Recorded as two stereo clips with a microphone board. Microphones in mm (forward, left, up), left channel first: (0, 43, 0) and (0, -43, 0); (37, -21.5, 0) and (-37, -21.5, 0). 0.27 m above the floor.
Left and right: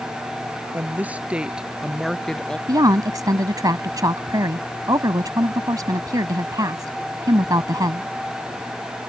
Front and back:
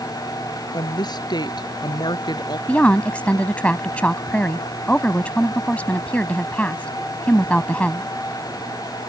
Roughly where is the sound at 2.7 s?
Right.